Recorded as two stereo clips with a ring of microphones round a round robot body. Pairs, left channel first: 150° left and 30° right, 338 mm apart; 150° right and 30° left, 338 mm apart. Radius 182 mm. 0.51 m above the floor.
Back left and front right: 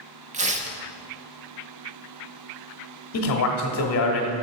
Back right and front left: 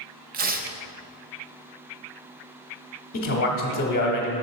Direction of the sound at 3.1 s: 170° left.